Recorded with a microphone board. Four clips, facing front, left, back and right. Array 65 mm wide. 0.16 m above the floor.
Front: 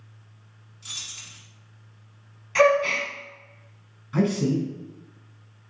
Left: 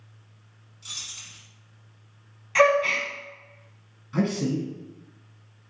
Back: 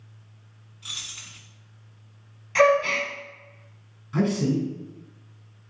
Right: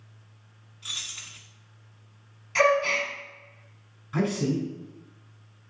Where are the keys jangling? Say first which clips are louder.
Right 3 dB, back 2 dB; 125° right, 0.7 m.